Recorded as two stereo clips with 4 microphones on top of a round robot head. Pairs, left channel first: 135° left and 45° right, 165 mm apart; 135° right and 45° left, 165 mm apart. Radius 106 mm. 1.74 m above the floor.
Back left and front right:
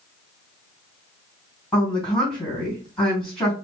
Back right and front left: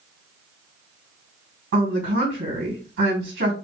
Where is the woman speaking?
45° left, 2.5 m.